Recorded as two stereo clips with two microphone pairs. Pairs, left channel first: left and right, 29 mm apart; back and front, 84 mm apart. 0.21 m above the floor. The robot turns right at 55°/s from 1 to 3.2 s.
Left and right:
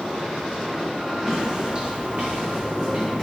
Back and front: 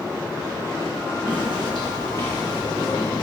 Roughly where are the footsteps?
Ahead.